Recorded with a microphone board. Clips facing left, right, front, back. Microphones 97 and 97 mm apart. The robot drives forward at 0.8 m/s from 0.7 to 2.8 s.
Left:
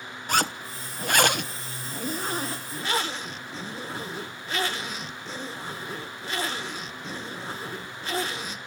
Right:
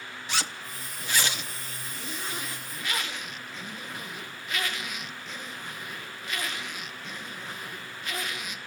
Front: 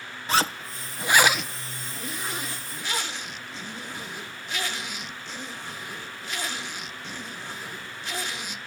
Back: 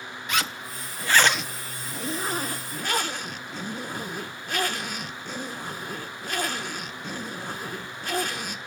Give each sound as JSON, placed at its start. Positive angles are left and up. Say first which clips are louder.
{"t": 0.3, "sound": "a zipper", "louder": "left 8 dB, front 5 dB", "azimuth_deg": 55, "distance_m": 1.0}